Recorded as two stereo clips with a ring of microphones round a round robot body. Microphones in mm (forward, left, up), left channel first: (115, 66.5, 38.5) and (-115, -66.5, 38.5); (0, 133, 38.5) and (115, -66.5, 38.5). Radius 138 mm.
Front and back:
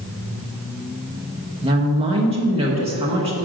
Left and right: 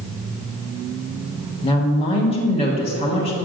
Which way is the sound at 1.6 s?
160° left.